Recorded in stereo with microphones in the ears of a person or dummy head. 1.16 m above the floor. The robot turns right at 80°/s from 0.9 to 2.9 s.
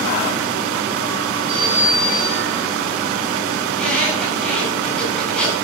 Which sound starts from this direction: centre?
A squeak, at 3.7 s.